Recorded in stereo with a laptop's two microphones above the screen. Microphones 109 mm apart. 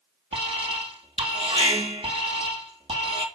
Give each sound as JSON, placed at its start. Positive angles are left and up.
{"t": 0.3, "sound": "an alarm", "side_deg": -60, "distance_m": 2.5}